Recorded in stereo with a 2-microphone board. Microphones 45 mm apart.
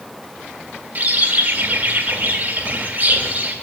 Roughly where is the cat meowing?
No cat meowing in this recording.